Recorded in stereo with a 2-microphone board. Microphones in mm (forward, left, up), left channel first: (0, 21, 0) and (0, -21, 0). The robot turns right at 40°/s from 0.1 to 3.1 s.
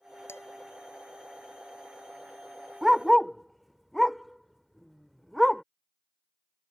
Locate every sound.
0.3 s dishes clattering: 75° left (ahead or behind); by 0.4 s 80° left
2.8 s a dog barking: 10° right (ahead or behind); by 5.6 s centre (ahead or behind)